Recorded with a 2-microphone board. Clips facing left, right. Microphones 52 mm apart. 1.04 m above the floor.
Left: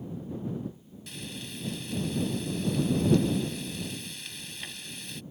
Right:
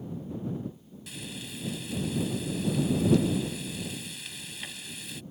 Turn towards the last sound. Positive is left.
turn(degrees=-5)  # may be behind; listen again after turning